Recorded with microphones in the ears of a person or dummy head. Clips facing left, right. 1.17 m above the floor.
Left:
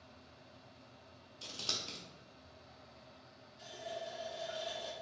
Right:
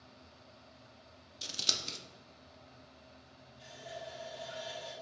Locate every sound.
1.4 s scissors: 25° right (ahead or behind), 0.6 m
3.6 s a running tap: 65° left (ahead or behind), 1.7 m